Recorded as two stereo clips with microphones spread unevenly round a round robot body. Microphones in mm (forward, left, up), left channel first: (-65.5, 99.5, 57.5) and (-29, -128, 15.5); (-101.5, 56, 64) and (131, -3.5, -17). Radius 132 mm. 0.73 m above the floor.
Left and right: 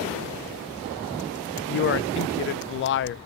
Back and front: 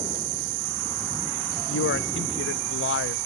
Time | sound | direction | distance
1.7 | a man speaking | 120° left | 0.5 m